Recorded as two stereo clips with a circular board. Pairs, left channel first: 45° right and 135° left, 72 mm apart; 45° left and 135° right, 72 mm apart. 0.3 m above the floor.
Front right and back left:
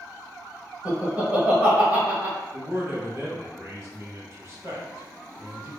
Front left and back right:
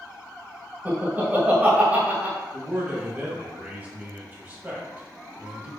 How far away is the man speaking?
About 1.6 m.